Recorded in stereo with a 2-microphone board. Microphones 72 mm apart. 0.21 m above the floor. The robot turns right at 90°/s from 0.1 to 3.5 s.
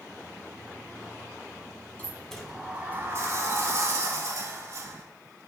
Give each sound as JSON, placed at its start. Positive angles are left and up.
{"t": 2.0, "sound": "a sliding door", "azimuth_deg": 140, "distance_m": 0.6}